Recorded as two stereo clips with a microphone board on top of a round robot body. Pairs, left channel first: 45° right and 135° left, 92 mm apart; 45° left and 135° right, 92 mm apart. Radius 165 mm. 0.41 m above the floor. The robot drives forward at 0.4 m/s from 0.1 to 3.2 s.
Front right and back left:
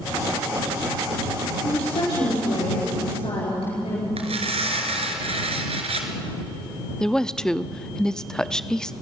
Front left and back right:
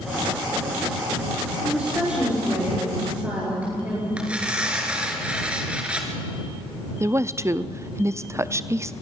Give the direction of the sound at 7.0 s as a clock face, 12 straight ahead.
4 o'clock.